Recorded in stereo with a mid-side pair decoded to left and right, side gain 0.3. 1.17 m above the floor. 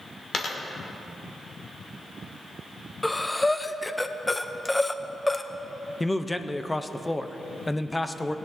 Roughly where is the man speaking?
Ahead.